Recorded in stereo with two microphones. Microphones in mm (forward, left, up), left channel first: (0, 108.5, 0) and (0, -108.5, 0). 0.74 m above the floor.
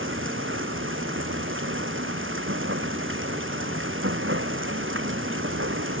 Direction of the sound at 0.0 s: 65° right (ahead or behind).